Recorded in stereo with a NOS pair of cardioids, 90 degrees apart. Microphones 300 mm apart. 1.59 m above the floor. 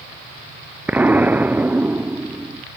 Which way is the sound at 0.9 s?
5° right.